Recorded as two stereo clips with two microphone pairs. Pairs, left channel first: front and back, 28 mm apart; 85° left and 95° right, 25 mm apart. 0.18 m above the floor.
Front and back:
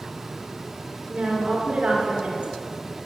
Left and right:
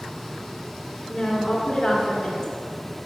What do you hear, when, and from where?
1.1 s a woman speaking: 150° left, 2 m